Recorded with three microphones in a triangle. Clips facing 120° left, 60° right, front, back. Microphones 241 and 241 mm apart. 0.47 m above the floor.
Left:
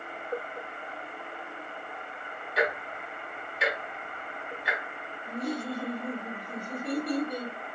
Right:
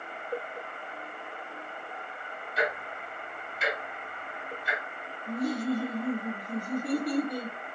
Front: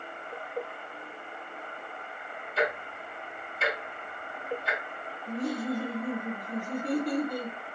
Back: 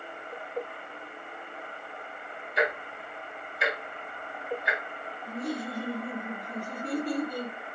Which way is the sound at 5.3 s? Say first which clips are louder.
Right 4 dB, front 3 dB; 60° right.